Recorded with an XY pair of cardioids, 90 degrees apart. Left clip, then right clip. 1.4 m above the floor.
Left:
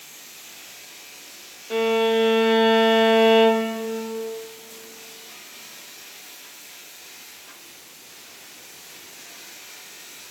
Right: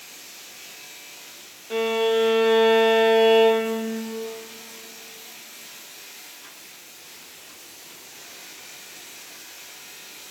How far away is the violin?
About 0.5 m.